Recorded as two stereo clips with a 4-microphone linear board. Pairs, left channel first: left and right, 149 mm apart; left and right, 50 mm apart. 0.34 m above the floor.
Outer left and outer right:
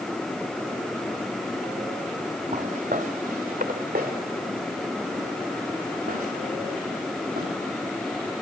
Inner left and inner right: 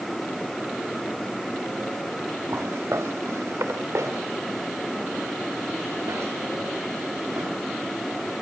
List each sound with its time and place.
2.5 s footsteps: 60° right (ahead or behind), 2 m; by 7.5 s 80° right, 8.5 m